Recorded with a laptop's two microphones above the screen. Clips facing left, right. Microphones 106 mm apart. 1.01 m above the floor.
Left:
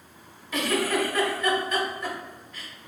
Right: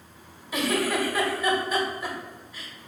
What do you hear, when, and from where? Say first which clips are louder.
0.5 s a giggle: even; 10° right (ahead or behind), 1.1 m